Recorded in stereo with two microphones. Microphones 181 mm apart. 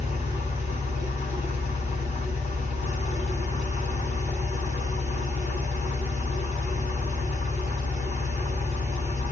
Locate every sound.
0.0 s an engine running: 40° left (ahead or behind), 1.5 m